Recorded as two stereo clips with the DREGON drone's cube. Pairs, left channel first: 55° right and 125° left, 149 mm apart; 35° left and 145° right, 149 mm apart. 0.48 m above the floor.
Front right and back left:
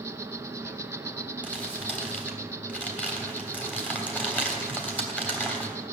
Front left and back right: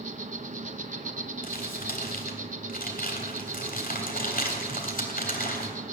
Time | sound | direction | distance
0.0 | an insect | 165° right | 0.8 m
1.4 | crumpling | 25° left | 3.5 m